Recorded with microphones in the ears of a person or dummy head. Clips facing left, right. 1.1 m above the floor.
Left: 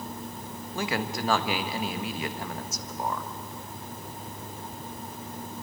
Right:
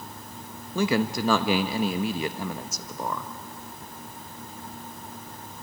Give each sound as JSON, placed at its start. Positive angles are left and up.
{"t": 0.8, "sound": "a man speaking", "side_deg": -75, "distance_m": 1.0}